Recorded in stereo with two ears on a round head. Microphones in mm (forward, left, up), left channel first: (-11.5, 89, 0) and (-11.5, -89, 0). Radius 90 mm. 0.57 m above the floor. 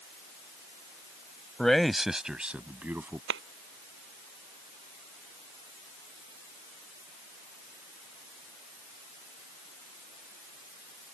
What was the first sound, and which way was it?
A man speaking, 5° left (ahead or behind).